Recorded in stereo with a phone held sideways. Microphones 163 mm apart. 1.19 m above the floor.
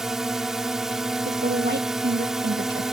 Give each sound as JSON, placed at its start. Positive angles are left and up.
{"t": 0.0, "sound": "a drone", "side_deg": -5}
{"t": 1.2, "sound": "a woman speaking", "side_deg": -75}